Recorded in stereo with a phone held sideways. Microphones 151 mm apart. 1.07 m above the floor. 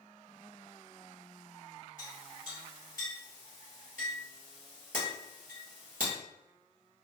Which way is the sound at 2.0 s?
70° right (ahead or behind).